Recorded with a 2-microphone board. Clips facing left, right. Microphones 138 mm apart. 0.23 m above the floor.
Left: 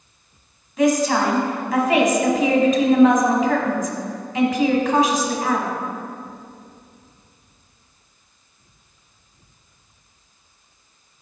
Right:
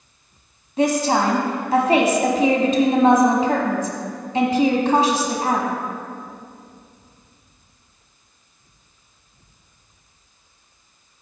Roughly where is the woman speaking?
Right.